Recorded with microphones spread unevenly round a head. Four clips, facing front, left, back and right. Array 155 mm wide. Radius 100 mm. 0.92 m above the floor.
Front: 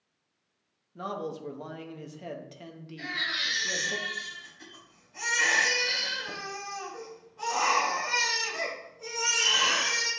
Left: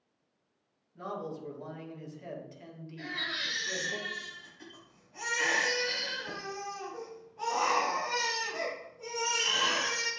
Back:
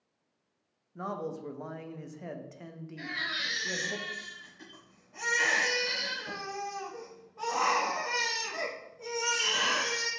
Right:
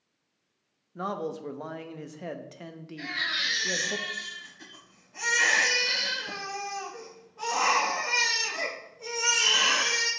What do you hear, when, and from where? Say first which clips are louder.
0.9 s a man speaking: right 6 dB, front 1 dB; 75° right, 0.9 m
3.0 s a baby crying: right 5 dB, front 2 dB; 165° left, 3 m